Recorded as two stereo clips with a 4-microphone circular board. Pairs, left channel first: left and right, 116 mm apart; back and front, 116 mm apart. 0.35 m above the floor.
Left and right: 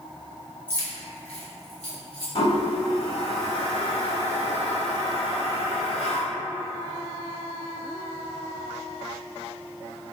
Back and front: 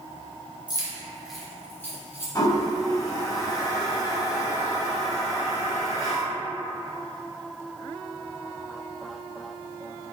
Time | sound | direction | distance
0.7 | keys jangling | 25° left | 0.6 m
2.4 | a toilet flushing | 125° left | 0.5 m